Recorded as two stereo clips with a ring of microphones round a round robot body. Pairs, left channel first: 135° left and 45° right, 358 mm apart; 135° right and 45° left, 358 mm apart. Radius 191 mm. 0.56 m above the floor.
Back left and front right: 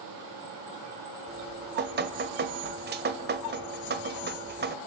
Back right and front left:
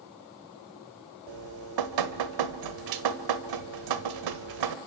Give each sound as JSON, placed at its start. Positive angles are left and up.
{"t": 1.3, "sound": "dripping", "azimuth_deg": 20, "distance_m": 1.7}